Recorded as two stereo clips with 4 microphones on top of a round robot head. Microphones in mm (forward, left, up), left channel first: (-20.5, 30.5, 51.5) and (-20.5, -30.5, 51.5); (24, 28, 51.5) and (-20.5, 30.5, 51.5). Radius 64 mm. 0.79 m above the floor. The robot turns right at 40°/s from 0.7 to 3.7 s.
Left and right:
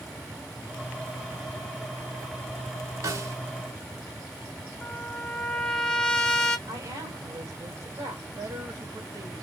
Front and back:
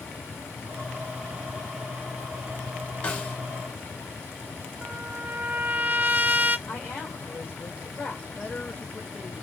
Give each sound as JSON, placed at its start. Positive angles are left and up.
{"t": 3.0, "sound": "a snare drum", "azimuth_deg": -65, "distance_m": 1.8}
{"t": 4.8, "sound": "a trumpet", "azimuth_deg": 150, "distance_m": 1.3}
{"t": 6.7, "sound": "a woman speaking", "azimuth_deg": -55, "distance_m": 2.5}
{"t": 8.3, "sound": "a man speaking", "azimuth_deg": -65, "distance_m": 1.6}